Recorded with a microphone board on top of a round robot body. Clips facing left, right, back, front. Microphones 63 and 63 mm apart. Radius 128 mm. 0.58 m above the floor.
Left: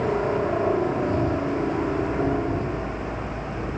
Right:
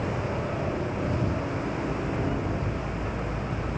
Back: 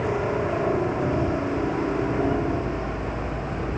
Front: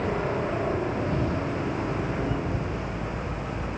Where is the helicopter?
100° left; by 3.8 s 140° left.